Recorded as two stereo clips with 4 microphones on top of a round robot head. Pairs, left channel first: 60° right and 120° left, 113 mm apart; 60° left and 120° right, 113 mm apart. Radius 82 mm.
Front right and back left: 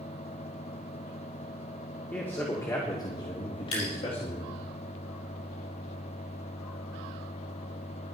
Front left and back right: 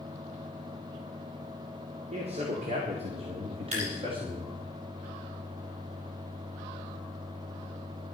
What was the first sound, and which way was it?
A man speaking, 135° right.